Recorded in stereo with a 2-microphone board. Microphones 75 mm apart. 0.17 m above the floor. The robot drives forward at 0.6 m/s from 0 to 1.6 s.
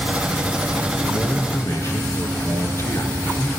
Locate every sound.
1.0 s a man speaking: 45° left (ahead or behind), 2 m; by 3.5 s 40° left (ahead or behind), 2 m